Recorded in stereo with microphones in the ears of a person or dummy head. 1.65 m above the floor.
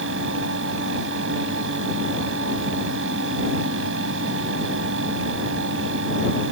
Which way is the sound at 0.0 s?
80° right.